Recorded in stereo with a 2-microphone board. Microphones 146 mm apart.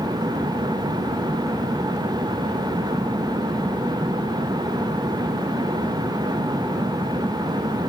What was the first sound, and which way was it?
Only background noise.